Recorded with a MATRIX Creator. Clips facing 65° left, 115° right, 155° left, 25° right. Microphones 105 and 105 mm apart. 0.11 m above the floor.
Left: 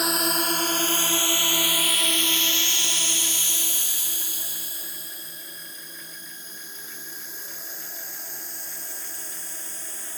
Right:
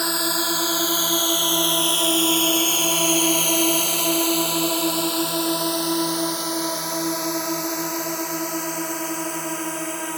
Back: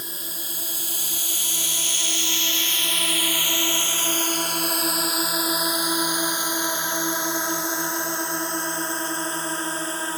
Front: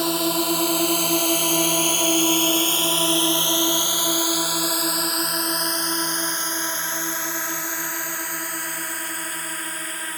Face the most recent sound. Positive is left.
turn(degrees=-140)